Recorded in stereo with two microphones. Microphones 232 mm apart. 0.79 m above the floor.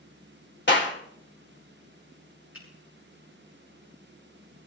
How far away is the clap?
About 2.5 m.